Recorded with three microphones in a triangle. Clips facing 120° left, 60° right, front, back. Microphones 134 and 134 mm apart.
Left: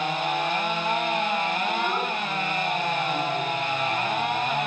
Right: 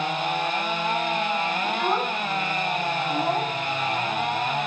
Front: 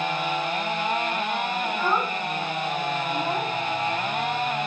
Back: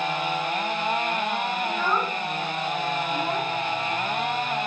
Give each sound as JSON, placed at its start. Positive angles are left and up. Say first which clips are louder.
{"t": 1.6, "sound": "a child speaking", "louder": "right 2 dB, front 2 dB", "azimuth_deg": -75, "distance_m": 3.0}